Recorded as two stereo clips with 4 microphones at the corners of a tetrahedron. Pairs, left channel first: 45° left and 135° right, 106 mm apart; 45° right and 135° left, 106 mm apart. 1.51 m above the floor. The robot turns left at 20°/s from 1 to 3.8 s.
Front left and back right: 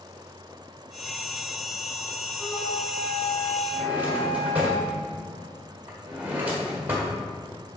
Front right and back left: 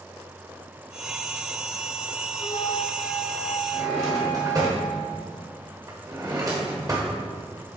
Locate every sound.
2.4 s a flute: 10° right, 2.5 m; by 4.7 s 40° right, 2.5 m
3.7 s a drawer: 165° left, 1.4 m; by 7.2 s 160° left, 1.4 m